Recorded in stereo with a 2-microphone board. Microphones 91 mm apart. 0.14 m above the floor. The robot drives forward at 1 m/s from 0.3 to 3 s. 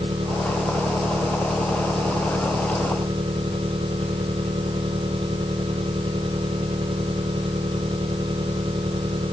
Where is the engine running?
85° right.